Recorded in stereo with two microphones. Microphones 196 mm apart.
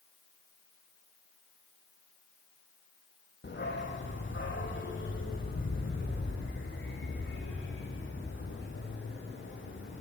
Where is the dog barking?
65° left (ahead or behind), 6 m; by 10.0 s 85° left, 15 m.